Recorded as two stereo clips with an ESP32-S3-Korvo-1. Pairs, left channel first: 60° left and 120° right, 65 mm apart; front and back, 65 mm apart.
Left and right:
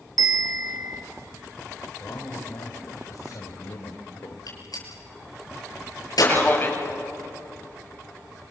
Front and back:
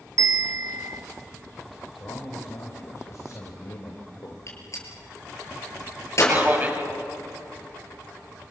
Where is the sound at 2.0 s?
35° left, 2.5 m.